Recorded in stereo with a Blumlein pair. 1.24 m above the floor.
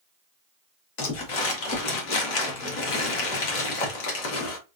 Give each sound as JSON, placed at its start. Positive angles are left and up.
{"t": 1.0, "sound": "crumpling", "azimuth_deg": 45, "distance_m": 1.2}